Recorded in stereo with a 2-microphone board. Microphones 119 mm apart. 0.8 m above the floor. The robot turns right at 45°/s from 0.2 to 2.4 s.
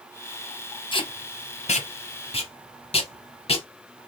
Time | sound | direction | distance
0.9 | tape being pulled | 45° left (ahead or behind) | 0.7 m